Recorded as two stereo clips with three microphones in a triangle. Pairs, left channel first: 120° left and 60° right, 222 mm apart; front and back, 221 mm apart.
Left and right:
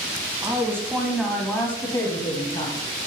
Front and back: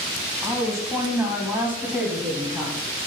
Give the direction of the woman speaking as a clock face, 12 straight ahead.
4 o'clock.